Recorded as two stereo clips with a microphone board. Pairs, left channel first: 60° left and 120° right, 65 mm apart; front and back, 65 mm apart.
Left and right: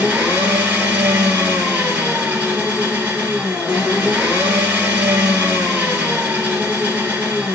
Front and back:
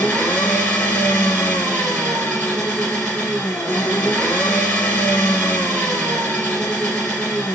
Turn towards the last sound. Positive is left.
turn(degrees=-60)